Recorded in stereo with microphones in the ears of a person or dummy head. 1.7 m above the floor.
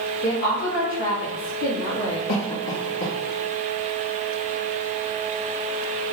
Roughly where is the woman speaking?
Left.